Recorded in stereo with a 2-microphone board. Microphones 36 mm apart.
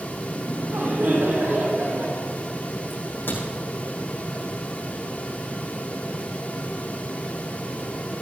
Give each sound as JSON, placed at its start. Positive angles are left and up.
{"t": 0.3, "sound": "laughter", "side_deg": -70, "distance_m": 6.0}
{"t": 2.9, "sound": "a crack", "side_deg": 75, "distance_m": 7.0}